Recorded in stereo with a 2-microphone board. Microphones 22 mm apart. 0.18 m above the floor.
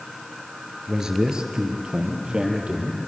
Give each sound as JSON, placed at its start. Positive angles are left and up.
{"t": 0.9, "sound": "a man speaking", "side_deg": -25, "distance_m": 2.5}